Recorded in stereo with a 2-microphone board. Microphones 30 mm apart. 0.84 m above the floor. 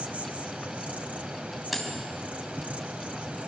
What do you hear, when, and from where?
0.0 s an insect: 55° right (ahead or behind), 1.3 m
1.7 s cutlery clinking: 5° right (ahead or behind), 3.5 m